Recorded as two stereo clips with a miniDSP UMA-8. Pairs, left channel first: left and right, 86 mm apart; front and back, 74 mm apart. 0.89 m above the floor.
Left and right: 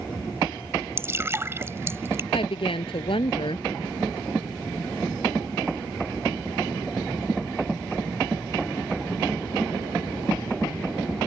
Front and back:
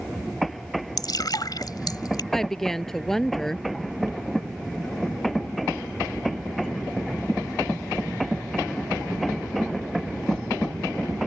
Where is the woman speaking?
85° left.